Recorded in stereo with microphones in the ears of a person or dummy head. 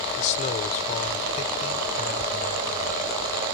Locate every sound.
0.2 s a man speaking: 45° left (ahead or behind)